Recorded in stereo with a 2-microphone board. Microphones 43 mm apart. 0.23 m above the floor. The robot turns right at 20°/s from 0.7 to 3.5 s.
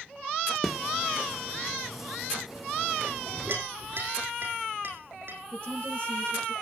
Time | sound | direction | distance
0.6 | a snare drum | 5° left (ahead or behind) | 1.7 m
3.1 | a clink | 65° right (ahead or behind) | 7 m
5.5 | a woman speaking | 25° left (ahead or behind) | 6.5 m